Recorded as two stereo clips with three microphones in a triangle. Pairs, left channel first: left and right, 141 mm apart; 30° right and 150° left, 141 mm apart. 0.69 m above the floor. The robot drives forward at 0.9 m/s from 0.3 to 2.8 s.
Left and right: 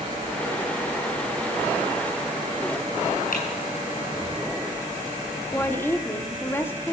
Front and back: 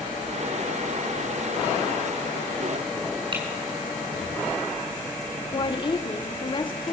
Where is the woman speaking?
15° left, 1.7 m.